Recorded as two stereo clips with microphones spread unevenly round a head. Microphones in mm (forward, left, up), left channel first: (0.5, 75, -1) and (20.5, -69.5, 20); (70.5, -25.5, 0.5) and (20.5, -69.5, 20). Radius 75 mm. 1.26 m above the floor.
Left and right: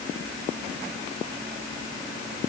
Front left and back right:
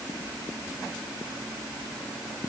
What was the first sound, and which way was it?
Only background noise.